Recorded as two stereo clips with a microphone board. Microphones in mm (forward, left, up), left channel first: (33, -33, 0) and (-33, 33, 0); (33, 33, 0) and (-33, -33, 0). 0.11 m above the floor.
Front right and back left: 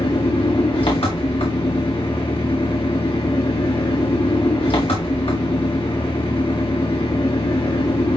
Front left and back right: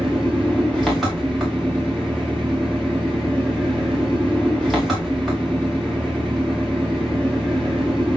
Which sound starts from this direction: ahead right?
An engine running, at 0.0 s.